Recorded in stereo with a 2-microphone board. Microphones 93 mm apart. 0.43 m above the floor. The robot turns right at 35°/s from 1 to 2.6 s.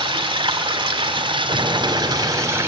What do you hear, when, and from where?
0.0 s running water: 85° right, 2 m; by 2.7 s 30° right, 2 m
1.5 s an explosion: 65° right, 2.5 m; by 2.7 s 25° right, 2.5 m